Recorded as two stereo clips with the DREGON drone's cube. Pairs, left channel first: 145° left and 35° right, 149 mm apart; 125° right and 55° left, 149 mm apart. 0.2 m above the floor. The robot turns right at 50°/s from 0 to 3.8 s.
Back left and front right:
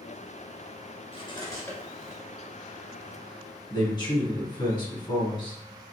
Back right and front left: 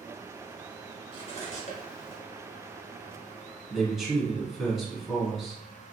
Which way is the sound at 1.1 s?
170° right.